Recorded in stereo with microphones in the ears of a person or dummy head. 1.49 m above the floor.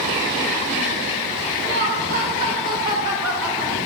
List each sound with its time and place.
1.6 s laughter: 70° right (ahead or behind), 1.6 m; by 3.8 s 5° left (ahead or behind), 1.7 m